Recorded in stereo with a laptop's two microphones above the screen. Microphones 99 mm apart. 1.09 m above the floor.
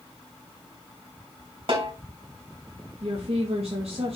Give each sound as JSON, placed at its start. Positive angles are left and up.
{"t": 1.7, "sound": "a snare drum", "side_deg": -55, "distance_m": 3.0}
{"t": 3.0, "sound": "a woman speaking", "side_deg": -65, "distance_m": 1.2}